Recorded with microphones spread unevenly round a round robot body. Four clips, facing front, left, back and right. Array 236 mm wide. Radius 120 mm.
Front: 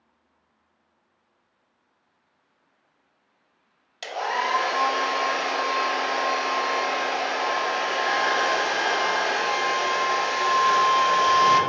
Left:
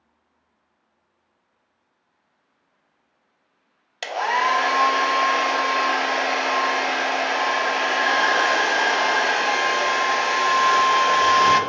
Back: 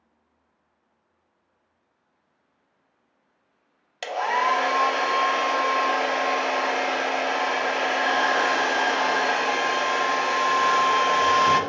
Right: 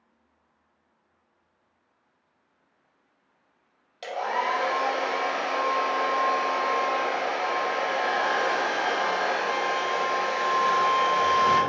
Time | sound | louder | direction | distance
4.0 | a hair dryer | left 6 dB, back 3 dB | 100° left | 0.5 m